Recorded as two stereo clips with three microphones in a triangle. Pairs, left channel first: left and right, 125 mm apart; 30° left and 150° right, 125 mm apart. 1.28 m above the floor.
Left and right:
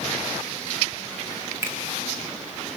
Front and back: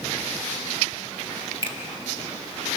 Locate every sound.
1.6 s a finger snap: 20° right, 1.8 m